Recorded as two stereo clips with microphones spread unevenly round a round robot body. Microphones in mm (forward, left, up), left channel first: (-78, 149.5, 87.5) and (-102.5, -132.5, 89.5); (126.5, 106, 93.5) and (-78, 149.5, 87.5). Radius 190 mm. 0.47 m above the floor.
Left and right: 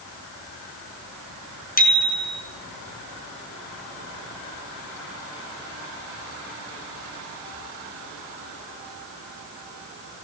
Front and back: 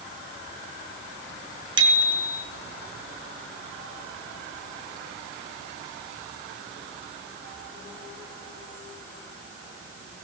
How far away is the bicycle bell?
About 5 m.